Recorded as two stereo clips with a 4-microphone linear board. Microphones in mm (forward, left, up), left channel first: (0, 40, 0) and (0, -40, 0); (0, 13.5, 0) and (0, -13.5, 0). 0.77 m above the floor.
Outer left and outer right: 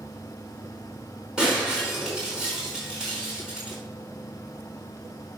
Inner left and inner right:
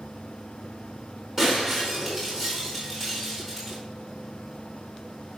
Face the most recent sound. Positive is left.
turn(degrees=-10)  # may be behind; listen again after turning